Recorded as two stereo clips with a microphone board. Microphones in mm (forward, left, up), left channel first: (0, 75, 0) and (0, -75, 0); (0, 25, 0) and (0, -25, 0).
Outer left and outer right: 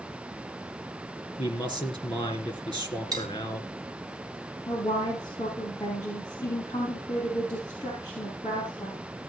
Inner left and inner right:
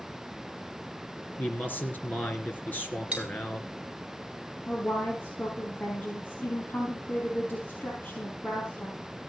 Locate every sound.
1.4 s a man speaking: 30° left (ahead or behind), 2.5 m
3.1 s cutlery clinking: 25° right (ahead or behind), 2.5 m
4.7 s a woman speaking: 25° left (ahead or behind), 4 m